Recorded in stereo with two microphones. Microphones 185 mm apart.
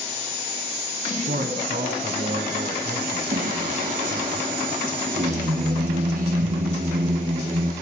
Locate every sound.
1.3 s a man speaking: 55° right (ahead or behind), 4.5 m
3.3 s singing: 45° right (ahead or behind), 4 m